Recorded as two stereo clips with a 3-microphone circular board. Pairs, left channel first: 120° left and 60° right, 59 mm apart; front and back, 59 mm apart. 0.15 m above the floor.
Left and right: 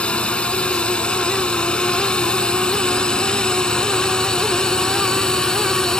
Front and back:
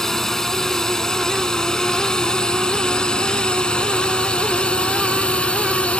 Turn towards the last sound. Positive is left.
turn(degrees=50)